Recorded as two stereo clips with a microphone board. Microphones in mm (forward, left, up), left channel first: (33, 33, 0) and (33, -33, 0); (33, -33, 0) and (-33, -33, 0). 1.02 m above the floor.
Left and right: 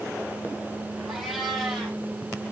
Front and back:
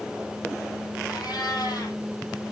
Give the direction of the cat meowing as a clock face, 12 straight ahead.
12 o'clock.